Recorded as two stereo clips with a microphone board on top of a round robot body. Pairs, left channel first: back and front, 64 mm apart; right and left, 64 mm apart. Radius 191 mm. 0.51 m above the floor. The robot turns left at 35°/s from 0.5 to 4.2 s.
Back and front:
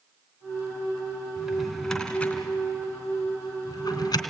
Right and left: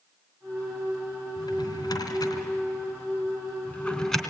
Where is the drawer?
75° right, 2.5 m; by 4.2 s 175° right, 2.5 m.